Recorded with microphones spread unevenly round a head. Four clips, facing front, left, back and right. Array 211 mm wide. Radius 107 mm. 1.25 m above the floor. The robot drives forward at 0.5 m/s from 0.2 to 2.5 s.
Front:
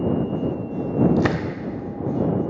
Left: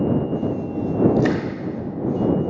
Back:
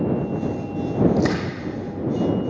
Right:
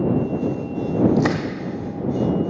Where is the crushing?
15° right, 1.2 m; by 1.4 s 20° right, 1.1 m.